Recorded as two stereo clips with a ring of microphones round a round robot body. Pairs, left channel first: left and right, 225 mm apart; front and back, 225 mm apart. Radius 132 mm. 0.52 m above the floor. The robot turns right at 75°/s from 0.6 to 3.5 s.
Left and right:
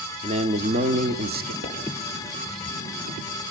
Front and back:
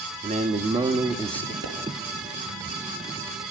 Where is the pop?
45° right, 6 m; by 1.8 s 35° right, 6 m.